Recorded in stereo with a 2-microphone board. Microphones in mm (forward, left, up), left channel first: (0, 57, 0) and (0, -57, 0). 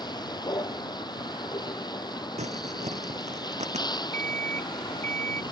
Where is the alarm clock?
70° right (ahead or behind).